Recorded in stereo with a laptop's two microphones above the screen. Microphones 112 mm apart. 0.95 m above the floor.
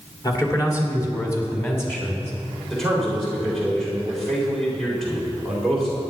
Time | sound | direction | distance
0.2 | a man speaking | 35° left (ahead or behind) | 3 m
2.7 | a man speaking | 5° left (ahead or behind) | 4 m